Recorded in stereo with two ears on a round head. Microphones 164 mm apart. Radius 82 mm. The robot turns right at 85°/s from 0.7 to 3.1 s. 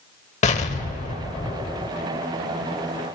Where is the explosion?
70° left, 0.8 m; by 1.9 s 170° left, 0.8 m.